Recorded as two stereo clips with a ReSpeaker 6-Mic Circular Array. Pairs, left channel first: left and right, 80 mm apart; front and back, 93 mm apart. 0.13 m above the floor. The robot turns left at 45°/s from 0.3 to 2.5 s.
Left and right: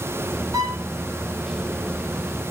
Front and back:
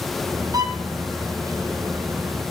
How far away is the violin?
About 2.5 m.